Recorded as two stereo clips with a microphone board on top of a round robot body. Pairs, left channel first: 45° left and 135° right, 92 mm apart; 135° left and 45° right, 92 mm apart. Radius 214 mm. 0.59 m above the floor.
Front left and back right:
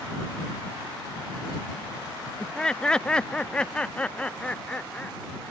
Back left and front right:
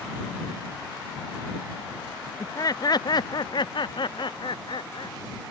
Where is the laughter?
125° left.